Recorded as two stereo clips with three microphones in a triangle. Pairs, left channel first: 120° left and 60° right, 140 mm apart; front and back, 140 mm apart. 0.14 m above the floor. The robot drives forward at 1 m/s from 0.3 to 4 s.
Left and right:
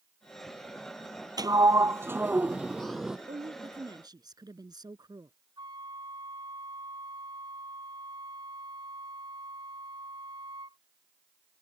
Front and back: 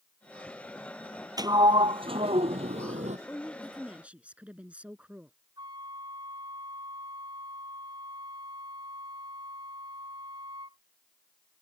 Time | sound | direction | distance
1.4 | a sliding door | 120° right | ?
3.3 | a woman speaking | 75° right | ?
5.6 | a flute | 120° right | ?